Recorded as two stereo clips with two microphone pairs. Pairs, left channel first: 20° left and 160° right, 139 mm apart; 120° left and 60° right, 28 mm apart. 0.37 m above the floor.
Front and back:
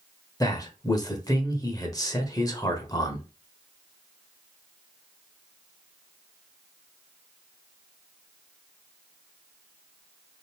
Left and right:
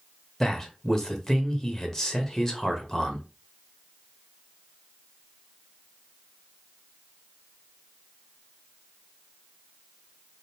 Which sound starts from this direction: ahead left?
A man speaking, at 0.4 s.